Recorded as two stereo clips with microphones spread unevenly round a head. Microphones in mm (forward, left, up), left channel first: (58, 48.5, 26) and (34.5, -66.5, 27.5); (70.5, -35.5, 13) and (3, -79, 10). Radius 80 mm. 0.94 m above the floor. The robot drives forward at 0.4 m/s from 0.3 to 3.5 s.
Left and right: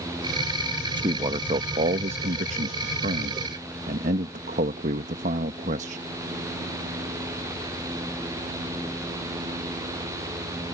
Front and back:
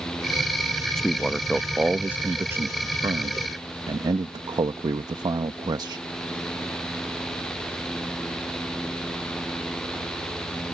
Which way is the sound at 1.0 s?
50° right.